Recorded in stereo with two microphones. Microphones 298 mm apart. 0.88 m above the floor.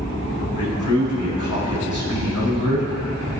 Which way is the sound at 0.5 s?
75° left (ahead or behind).